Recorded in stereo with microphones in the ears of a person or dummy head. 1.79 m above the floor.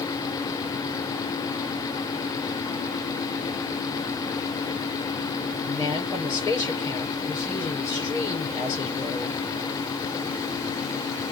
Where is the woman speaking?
10° left (ahead or behind), 6.5 m.